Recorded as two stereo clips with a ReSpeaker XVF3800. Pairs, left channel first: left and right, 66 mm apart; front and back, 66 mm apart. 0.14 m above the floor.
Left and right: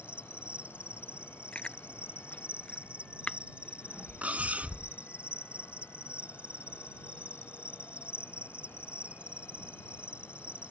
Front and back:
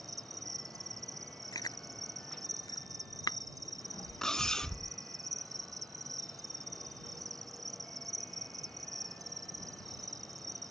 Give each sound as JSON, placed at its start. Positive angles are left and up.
{"t": 0.0, "sound": "an insect", "azimuth_deg": -160}
{"t": 1.5, "sound": "chewing", "azimuth_deg": 15}
{"t": 4.2, "sound": "cutlery clinking", "azimuth_deg": -65}